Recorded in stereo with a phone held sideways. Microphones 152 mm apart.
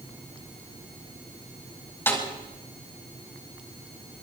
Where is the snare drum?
15° left (ahead or behind), 4.5 m.